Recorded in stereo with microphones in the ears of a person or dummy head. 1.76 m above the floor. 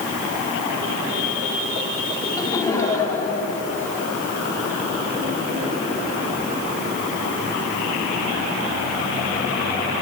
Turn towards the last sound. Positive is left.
turn(degrees=5)  # may be behind; listen again after turning